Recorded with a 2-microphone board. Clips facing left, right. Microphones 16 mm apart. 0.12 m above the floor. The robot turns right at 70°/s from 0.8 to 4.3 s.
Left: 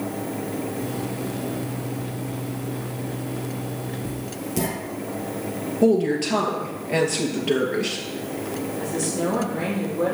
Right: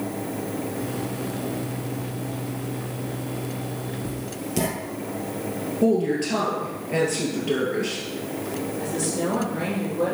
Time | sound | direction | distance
4.0 | writing | centre (ahead or behind) | 1.8 m
5.8 | a woman speaking | 20° left (ahead or behind) | 2 m
8.8 | a woman speaking | 5° right (ahead or behind) | 3.5 m